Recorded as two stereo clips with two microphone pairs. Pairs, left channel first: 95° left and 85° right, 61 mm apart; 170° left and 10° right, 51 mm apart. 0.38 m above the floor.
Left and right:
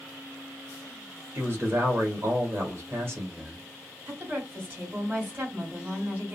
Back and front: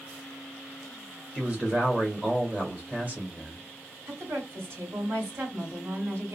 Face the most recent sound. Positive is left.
turn(degrees=-35)